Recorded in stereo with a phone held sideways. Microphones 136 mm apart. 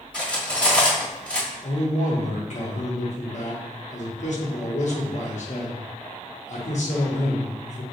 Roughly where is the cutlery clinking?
Centre.